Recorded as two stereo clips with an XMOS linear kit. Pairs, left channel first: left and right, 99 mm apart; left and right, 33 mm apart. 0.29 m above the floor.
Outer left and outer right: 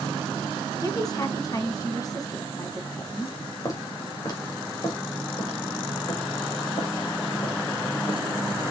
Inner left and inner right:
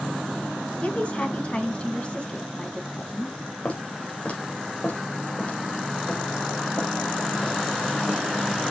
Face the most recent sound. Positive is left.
turn(degrees=60)  # may be behind; listen again after turning